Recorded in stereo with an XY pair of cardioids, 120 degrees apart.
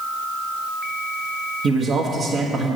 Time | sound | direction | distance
1.6 | a man speaking | 50° right | 1.3 m